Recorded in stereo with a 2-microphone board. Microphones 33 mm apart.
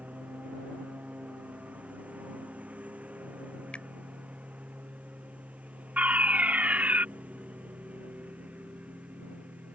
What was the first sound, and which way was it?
A lawn mower, 45° right (ahead or behind).